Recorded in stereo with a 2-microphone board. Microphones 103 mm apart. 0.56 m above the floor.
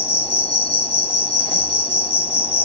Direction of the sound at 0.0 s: 75° left (ahead or behind).